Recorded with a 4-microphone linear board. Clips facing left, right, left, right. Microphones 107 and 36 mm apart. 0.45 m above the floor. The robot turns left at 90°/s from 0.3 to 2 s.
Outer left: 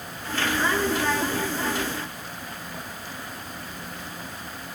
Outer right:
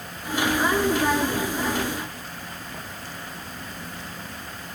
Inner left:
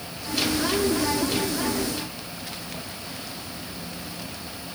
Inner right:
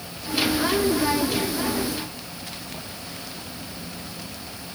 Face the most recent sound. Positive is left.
No sound to turn to.